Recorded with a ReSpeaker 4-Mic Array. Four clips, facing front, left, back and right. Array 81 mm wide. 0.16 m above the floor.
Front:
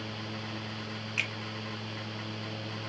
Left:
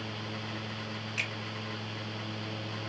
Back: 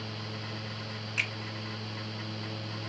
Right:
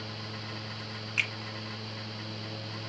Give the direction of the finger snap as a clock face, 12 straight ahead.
2 o'clock.